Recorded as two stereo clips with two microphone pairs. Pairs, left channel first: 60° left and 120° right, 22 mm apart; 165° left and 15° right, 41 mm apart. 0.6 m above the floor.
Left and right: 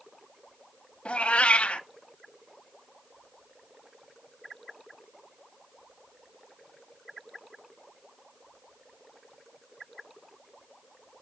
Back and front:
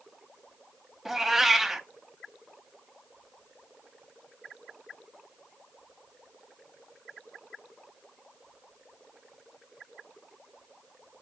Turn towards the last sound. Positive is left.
turn(degrees=65)